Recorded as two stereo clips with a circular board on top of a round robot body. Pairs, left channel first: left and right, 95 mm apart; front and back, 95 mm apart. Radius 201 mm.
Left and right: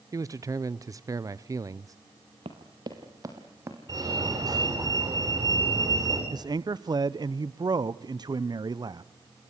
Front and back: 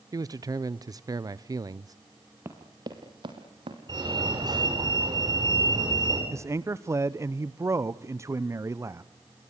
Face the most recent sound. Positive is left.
turn(degrees=-125)